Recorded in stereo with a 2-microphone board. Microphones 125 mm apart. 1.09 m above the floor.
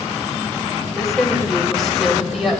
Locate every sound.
0.8 s a woman speaking: centre (ahead or behind), 3 m